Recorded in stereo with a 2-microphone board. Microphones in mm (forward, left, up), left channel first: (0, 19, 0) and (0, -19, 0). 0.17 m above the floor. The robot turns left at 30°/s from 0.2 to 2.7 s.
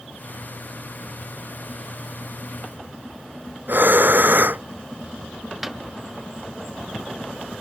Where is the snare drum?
5° right (ahead or behind).